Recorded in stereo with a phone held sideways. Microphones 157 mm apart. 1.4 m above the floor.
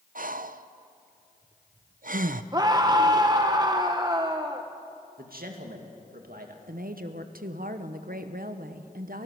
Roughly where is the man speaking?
Right.